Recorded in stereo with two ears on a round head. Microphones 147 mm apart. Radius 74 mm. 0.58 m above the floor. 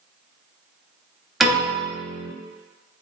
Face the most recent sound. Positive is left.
turn(degrees=0)  # may be behind; listen again after turning